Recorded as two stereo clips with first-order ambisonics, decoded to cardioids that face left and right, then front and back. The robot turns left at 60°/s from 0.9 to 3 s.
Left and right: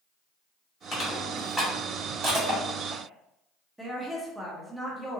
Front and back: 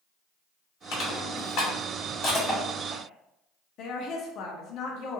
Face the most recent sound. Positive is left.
turn(degrees=-5)